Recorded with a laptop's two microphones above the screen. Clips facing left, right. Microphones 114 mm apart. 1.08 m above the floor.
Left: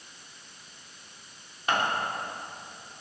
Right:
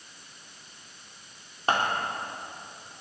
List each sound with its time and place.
1.7 s scissors: 35° right (ahead or behind), 3 m